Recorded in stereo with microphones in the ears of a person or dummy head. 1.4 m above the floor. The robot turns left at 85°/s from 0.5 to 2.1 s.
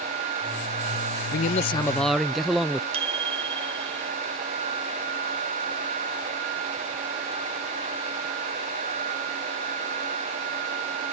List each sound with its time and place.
1.3 s a man speaking: 65° left; by 2.8 s straight ahead
2.9 s a bicycle bell: 35° right (ahead or behind)